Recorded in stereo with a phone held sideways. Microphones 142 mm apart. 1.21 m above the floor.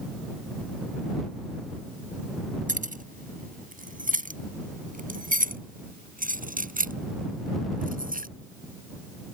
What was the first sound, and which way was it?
Keys jangling, 70° right (ahead or behind).